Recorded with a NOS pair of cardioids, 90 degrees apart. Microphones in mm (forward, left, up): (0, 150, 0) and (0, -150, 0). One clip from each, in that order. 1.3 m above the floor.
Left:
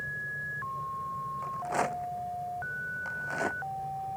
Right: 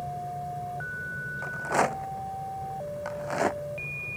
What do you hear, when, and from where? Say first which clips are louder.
0.0 s a fan: right 1 dB; 35° right
1.4 s a rattle: right 6 dB; 40° right